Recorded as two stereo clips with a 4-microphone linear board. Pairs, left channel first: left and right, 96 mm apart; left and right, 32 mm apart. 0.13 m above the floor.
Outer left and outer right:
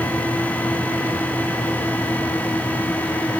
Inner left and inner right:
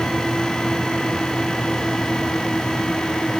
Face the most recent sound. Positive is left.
No sound to turn to.